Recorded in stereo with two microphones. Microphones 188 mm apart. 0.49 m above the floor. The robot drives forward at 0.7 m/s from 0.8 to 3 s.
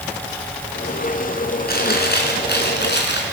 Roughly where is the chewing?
Left.